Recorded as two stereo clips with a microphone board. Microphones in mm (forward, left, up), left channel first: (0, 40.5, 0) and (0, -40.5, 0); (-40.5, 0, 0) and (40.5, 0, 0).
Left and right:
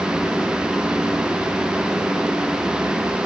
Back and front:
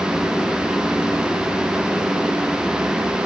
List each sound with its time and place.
Only background noise.